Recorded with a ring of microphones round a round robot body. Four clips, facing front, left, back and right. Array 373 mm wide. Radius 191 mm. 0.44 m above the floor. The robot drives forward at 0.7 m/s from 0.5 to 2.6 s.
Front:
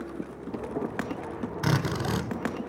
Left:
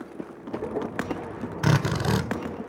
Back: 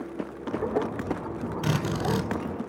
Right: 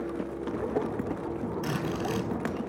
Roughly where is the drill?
Left.